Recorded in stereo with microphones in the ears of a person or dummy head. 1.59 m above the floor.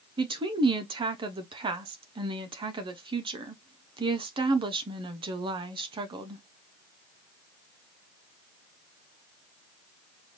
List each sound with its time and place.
0.2 s a woman speaking: 25° right (ahead or behind), 0.7 m